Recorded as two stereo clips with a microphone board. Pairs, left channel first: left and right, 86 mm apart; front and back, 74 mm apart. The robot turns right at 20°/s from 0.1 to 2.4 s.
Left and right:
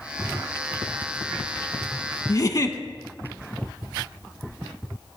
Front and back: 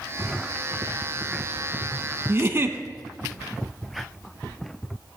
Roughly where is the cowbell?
No cowbell in this recording.